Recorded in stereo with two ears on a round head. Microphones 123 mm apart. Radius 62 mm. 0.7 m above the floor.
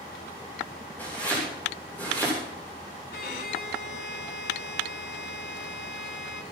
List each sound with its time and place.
1.0 s chopping: 15° left (ahead or behind), 9.5 m
3.1 s a violin: 75° left (ahead or behind), 1.5 m